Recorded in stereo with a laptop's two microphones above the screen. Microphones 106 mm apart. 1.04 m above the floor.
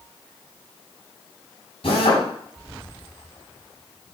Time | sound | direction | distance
1.8 | a drill | 60° left (ahead or behind) | 7 m